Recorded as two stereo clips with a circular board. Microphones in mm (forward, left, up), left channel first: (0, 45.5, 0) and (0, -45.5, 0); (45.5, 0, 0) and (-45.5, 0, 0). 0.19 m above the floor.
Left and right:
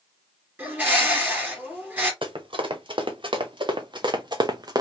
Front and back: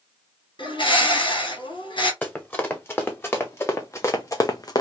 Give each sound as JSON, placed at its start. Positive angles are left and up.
{"t": 0.6, "sound": "a bird", "azimuth_deg": -20, "distance_m": 2.5}
{"t": 2.2, "sound": "running footsteps", "azimuth_deg": -70, "distance_m": 2.0}